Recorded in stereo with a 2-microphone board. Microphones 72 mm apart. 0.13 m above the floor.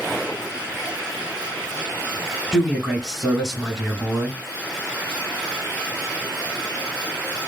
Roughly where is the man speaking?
Centre.